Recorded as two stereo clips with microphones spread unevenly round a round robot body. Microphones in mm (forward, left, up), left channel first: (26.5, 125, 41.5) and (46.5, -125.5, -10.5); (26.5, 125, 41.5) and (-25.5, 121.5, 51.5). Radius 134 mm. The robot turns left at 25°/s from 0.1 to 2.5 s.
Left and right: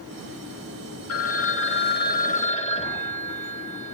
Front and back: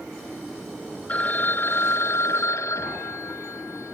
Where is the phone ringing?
65° left, 2.5 m; by 4.0 s 30° left, 2.5 m.